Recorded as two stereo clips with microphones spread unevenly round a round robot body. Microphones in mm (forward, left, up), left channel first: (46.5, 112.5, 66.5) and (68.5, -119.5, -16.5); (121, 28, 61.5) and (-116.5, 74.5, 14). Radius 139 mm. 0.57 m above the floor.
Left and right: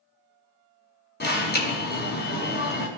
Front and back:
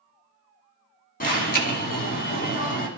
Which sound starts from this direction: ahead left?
An alarm, at 1.2 s.